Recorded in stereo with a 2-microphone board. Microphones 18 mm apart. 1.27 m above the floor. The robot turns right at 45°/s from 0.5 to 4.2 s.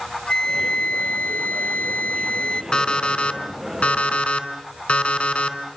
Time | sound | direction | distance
0.3 | a flute | 45° left | 0.9 m
2.7 | an alarm clock | 45° left | 4 m